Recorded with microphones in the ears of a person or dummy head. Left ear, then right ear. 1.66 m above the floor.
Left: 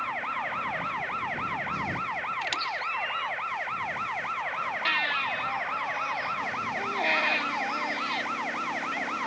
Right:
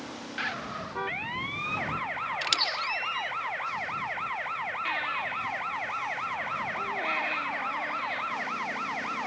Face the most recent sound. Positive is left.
turn(degrees=25)  # may be behind; listen again after turning